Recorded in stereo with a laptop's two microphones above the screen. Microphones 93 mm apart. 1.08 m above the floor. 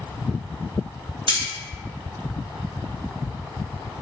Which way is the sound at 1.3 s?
65° right (ahead or behind).